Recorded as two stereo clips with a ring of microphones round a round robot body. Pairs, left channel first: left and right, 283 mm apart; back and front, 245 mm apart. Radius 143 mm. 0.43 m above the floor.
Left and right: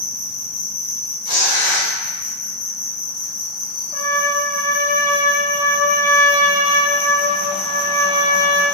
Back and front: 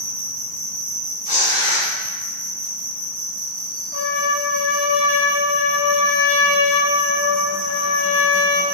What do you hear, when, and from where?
0.0 s an insect: 45° left, 1.2 m
1.2 s tearing paper: 140° right, 1.4 m
3.9 s a trumpet: 165° left, 0.7 m